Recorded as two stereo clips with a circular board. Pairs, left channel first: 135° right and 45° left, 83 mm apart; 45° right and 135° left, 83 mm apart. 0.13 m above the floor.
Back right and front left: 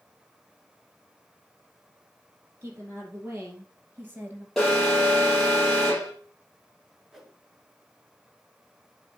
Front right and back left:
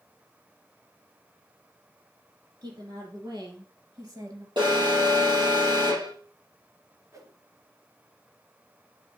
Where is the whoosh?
130° left, 1.4 m.